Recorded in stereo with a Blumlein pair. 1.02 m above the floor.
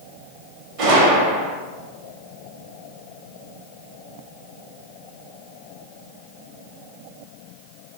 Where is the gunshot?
45° right, 1.0 m.